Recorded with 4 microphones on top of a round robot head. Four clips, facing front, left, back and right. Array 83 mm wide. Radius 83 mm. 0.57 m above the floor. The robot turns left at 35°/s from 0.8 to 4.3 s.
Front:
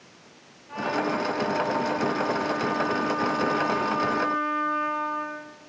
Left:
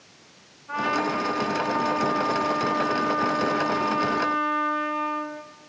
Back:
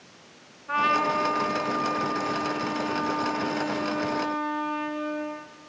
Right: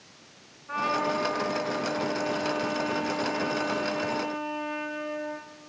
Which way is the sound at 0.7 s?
170° left.